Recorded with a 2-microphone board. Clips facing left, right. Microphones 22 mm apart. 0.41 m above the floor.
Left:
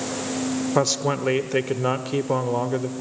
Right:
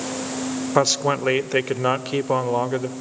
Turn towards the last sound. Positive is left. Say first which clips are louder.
# right 4 dB
turn(degrees=-20)  # may be behind; listen again after turning